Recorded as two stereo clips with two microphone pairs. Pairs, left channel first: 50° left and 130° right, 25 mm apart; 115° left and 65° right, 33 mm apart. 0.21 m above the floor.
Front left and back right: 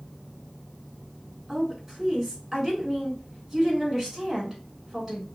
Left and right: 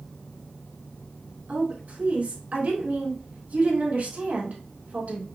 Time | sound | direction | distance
1.5 | a woman speaking | 55° right | 3 m